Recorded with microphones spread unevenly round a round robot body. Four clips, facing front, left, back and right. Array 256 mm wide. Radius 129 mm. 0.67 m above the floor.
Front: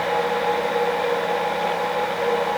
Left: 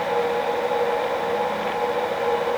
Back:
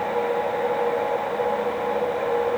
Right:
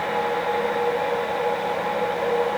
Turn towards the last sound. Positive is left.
No sound to turn to.